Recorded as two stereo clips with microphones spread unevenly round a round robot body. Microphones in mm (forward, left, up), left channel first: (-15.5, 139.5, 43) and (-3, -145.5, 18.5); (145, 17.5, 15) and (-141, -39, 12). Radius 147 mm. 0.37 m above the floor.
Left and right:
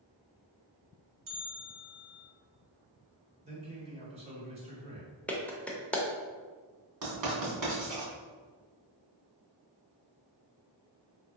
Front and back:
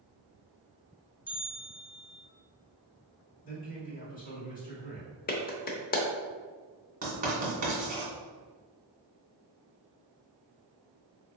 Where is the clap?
Straight ahead, 0.6 m.